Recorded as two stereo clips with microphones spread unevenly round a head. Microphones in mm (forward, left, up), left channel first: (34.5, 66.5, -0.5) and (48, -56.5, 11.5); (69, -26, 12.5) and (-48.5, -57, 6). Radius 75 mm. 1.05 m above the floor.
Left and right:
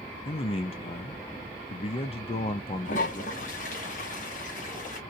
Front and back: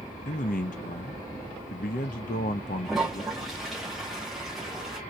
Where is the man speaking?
55° left, 0.8 m.